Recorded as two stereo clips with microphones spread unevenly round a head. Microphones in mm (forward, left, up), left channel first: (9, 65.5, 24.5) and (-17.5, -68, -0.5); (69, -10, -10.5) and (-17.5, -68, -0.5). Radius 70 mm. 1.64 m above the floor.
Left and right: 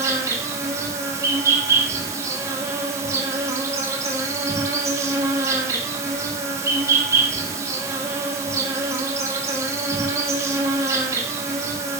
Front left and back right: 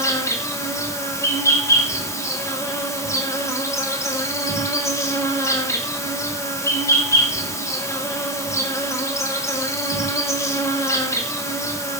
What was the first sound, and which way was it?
An insect, 30° right.